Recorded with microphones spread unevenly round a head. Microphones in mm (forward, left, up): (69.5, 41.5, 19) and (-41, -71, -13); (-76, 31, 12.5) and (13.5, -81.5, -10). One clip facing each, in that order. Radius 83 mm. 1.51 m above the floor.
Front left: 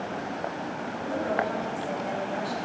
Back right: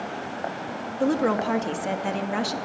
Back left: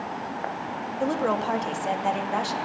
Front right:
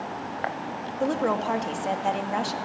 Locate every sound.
1.0 s a woman speaking: 140° right, 2 m